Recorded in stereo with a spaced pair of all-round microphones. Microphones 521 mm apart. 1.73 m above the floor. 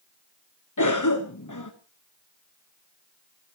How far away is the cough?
About 1.3 m.